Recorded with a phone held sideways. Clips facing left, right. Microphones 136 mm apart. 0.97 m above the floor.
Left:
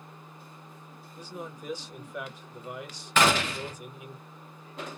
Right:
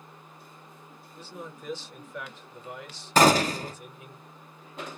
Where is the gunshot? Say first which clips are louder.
Right 5 dB; 35° right (ahead or behind), 0.5 m.